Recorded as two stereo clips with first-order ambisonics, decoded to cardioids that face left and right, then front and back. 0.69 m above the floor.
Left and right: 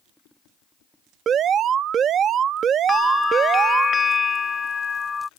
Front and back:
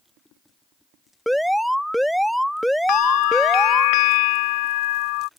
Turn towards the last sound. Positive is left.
turn(degrees=15)